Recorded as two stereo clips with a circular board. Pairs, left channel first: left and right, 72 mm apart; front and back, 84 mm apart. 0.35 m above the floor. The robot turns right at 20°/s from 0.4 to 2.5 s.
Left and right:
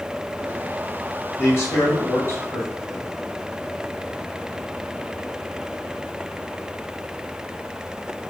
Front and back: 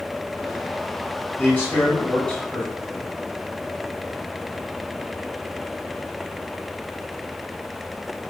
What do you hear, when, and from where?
1.4 s a man speaking: 55° left, 1.9 m; by 3.1 s 75° left, 1.9 m